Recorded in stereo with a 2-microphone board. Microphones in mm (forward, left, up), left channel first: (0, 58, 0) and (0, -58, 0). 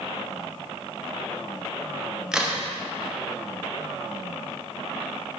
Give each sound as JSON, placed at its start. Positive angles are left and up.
{"t": 2.3, "sound": "a crack", "side_deg": -5, "distance_m": 0.7}